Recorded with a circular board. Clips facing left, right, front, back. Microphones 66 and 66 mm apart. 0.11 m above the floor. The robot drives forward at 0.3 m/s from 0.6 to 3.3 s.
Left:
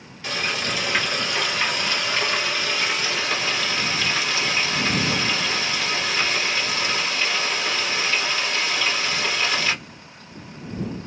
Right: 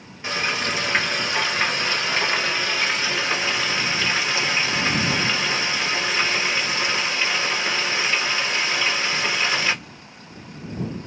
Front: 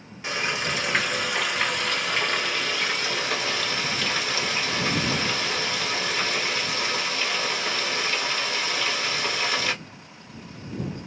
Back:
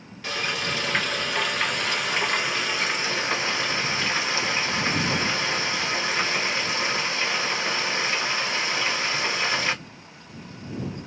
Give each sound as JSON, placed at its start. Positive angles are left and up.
{"t": 0.2, "sound": "frying", "azimuth_deg": -55, "distance_m": 1.2}